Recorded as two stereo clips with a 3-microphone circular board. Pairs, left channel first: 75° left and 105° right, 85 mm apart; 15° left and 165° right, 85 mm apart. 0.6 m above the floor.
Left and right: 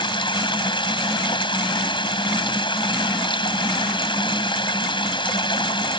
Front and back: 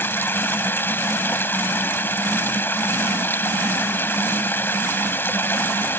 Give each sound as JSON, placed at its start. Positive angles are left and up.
{"t": 0.0, "sound": "running water", "azimuth_deg": 80}